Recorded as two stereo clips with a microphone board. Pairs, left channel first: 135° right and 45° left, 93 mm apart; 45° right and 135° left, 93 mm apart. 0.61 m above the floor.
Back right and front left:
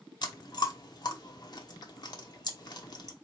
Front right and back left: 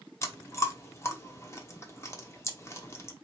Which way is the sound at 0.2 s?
100° right.